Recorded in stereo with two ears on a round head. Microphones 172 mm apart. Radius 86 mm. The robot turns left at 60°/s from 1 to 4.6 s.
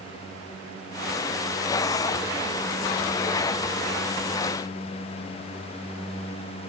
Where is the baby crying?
I don't hear a baby crying.